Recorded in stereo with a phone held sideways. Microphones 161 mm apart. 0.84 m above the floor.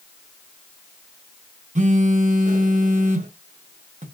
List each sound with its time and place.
1.8 s a phone buzzing: 50° right (ahead or behind), 0.8 m